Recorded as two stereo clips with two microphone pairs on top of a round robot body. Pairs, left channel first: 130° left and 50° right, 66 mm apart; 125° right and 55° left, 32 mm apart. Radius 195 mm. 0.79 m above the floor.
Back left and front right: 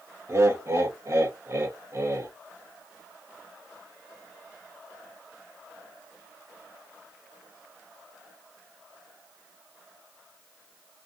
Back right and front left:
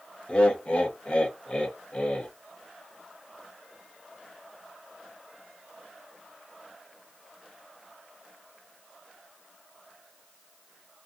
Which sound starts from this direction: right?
Laughter, at 0.3 s.